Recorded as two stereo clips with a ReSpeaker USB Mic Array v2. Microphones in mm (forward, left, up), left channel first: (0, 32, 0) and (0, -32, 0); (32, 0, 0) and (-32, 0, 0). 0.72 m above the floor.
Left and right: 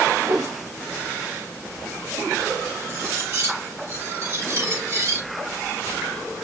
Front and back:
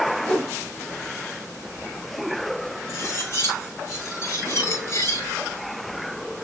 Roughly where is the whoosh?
Right.